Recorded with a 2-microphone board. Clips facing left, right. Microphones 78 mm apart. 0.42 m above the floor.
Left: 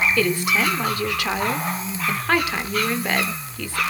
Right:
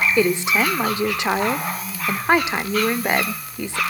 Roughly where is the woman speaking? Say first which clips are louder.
Right 2 dB; right.